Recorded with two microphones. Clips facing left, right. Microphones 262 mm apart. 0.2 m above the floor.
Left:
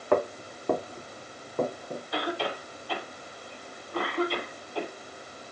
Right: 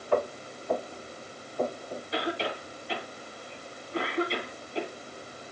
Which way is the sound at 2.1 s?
25° right (ahead or behind).